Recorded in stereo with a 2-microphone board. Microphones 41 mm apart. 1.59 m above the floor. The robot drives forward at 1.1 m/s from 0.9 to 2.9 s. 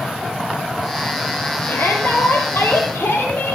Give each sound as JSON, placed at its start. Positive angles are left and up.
{"t": 1.7, "sound": "a shout", "side_deg": 75, "distance_m": 6.5}